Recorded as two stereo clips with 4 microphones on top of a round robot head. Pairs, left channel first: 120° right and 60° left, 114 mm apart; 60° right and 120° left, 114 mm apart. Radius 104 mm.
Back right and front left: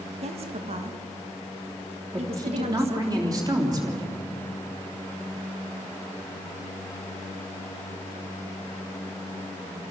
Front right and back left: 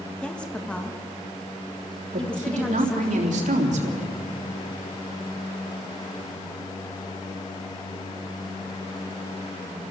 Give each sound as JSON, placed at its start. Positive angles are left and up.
{"t": 0.2, "sound": "a woman speaking", "azimuth_deg": 25, "distance_m": 1.9}
{"t": 2.1, "sound": "a woman speaking", "azimuth_deg": 115, "distance_m": 3.5}